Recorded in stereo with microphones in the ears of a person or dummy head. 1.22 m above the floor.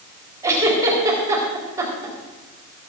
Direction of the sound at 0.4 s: 20° right (ahead or behind).